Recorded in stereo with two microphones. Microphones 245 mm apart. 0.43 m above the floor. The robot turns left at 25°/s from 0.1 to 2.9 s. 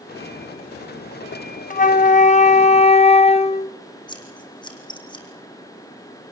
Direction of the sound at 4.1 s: 20° left (ahead or behind).